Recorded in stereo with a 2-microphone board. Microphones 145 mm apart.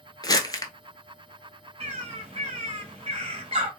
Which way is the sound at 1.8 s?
45° right (ahead or behind).